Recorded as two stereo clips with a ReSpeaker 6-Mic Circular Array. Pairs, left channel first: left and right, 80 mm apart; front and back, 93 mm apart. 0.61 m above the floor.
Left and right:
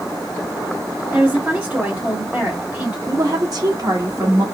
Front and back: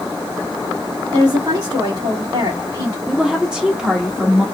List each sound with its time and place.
1.1 s a woman speaking: 155° right, 1.7 m
3.1 s a woman speaking: 100° right, 1.3 m